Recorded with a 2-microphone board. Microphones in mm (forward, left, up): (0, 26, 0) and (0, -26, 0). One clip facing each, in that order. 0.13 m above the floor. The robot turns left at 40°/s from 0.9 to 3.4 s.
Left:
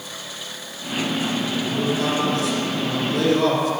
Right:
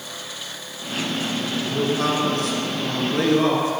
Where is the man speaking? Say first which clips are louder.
Right 2 dB; 70° right, 2 m; by 3.7 s 140° right, 2 m.